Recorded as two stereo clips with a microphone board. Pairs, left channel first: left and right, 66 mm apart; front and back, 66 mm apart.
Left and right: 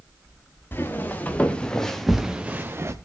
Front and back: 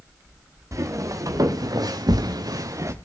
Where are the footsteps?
145° left, 3 m; by 2.9 s 135° right, 1.5 m.